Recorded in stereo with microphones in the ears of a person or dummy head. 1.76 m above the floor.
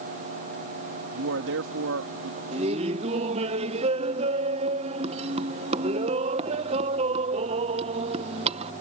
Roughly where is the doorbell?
I don't hear a doorbell.